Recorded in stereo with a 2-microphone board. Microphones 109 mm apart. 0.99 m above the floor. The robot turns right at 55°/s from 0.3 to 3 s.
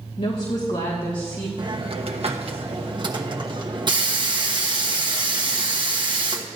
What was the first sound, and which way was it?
A woman speaking, 80° left.